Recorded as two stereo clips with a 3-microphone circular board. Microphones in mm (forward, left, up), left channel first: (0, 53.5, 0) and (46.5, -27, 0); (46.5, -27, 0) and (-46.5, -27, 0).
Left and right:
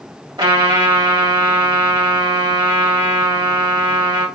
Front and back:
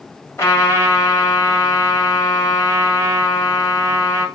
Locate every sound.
0.4 s a trumpet: 55° right, 1.8 m